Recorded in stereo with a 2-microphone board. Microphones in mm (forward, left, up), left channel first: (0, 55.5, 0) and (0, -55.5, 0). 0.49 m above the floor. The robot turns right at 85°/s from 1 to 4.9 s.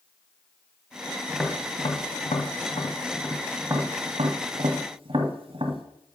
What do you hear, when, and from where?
1.3 s tapping: centre (ahead or behind), 1.1 m; by 5.8 s 55° right (ahead or behind), 1.1 m